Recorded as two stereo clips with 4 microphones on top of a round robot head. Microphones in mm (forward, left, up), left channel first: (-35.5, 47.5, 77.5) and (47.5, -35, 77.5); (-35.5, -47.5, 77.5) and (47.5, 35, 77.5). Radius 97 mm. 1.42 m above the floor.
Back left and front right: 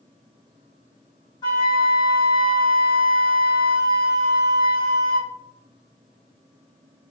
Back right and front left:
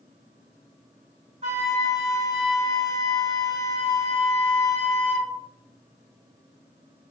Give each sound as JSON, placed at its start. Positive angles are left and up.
{"t": 1.4, "sound": "a flute", "azimuth_deg": 85, "distance_m": 1.1}